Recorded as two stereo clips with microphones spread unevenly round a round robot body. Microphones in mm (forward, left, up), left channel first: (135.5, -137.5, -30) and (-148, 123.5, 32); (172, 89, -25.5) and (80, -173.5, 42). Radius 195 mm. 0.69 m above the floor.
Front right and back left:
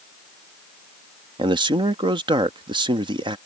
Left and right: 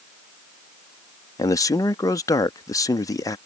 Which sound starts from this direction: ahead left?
A man speaking, at 1.4 s.